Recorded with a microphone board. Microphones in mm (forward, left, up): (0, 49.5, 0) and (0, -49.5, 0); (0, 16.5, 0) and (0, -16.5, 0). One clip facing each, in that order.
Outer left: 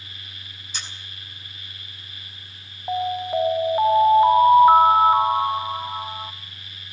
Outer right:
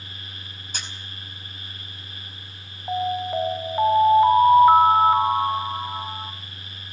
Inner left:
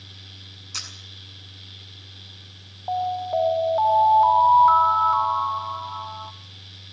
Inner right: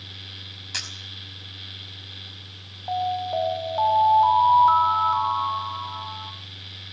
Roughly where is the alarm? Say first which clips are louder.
Outer left 1 dB, inner left 1 dB; centre.